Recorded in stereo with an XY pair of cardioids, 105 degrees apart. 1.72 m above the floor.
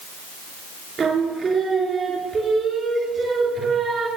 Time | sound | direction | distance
1.0 | singing | 45° right | 3.5 m